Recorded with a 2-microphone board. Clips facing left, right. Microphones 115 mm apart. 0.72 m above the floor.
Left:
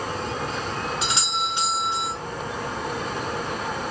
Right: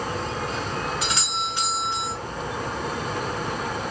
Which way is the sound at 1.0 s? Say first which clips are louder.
Left 1 dB; 25° left (ahead or behind).